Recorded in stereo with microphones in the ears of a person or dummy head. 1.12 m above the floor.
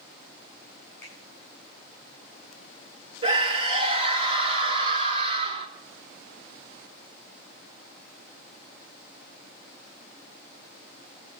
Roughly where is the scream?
Right.